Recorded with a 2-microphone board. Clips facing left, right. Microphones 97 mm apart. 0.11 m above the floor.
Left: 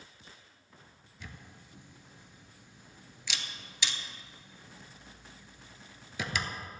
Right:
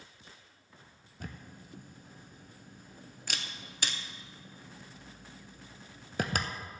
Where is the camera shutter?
50° right (ahead or behind), 0.6 m.